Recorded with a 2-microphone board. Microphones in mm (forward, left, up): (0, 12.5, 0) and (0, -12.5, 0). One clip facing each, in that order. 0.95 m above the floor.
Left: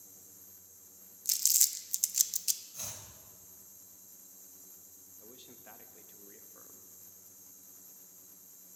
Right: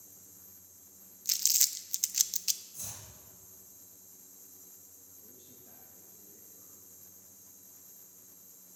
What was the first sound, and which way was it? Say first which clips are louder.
Crumpling: right 1 dB; 20° right (ahead or behind).